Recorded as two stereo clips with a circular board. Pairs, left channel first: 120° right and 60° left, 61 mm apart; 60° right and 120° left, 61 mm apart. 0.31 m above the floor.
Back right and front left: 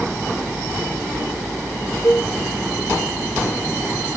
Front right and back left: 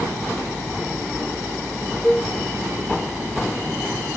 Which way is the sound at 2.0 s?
150° right.